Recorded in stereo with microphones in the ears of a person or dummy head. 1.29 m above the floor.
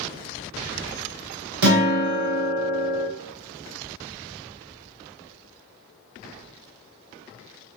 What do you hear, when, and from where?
1.6 s a guitar: 55° right (ahead or behind), 0.7 m